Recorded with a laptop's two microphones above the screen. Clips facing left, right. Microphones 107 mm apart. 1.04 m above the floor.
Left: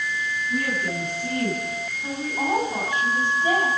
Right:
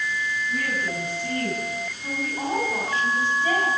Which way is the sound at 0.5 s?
20° left (ahead or behind).